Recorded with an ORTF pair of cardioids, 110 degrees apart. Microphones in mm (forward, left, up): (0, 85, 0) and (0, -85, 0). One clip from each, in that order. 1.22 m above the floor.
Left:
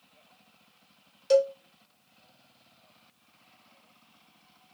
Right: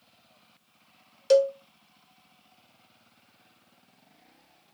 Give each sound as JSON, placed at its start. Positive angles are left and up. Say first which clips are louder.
{"t": 1.3, "sound": "a cowbell", "louder": "right 2 dB", "azimuth_deg": -25, "distance_m": 0.6}